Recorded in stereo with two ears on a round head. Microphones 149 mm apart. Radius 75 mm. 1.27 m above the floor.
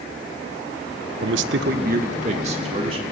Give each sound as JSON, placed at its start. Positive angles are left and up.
{"t": 1.2, "sound": "a man speaking", "side_deg": -75, "distance_m": 0.9}